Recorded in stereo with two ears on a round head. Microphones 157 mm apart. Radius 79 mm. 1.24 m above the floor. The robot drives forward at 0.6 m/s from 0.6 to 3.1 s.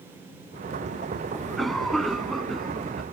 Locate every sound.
1.3 s a cough: centre (ahead or behind)